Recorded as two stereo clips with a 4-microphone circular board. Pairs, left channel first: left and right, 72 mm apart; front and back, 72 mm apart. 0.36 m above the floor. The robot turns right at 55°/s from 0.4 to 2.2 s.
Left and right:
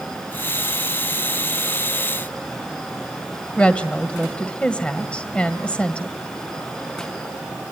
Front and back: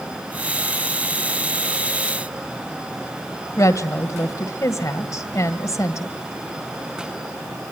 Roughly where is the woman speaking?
Ahead.